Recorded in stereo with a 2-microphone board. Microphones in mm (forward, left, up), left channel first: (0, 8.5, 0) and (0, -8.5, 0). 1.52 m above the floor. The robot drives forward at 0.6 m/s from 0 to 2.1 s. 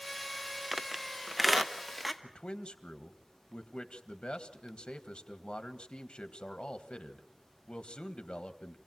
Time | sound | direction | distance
0.7 | a squeak | 15° right (ahead or behind) | 0.6 m
2.2 | a man speaking | 75° left (ahead or behind) | 1.5 m